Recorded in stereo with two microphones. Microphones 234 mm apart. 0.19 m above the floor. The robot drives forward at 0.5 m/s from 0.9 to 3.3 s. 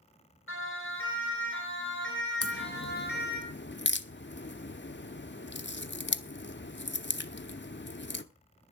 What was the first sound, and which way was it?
A siren, 65° left (ahead or behind).